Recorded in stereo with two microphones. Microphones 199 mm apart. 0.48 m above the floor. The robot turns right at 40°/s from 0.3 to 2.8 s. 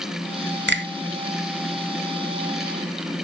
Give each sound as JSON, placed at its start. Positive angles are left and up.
{"t": 0.7, "sound": "a finger snap", "side_deg": -60, "distance_m": 1.1}